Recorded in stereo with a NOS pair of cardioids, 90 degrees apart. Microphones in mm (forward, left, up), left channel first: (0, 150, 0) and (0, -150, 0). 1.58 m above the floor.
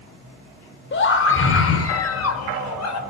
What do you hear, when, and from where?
0.9 s a scream: 40° left, 4.5 m; by 3.0 s 65° left, 5 m